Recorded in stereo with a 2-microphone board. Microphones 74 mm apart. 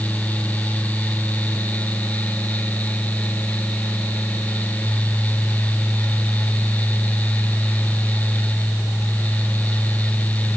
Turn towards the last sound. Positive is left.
No sound to turn to.